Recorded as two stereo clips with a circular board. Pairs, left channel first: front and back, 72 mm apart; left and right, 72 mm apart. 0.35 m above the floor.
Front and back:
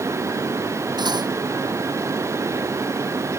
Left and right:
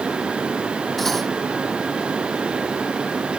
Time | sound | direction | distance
1.0 | cutlery clinking | 175° left | ?